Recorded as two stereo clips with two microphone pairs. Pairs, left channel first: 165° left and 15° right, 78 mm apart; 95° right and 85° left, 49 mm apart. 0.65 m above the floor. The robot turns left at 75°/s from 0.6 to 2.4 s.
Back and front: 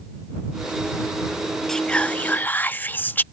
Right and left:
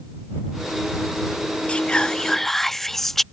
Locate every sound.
1.7 s whispering: 120° right; by 3.2 s 170° right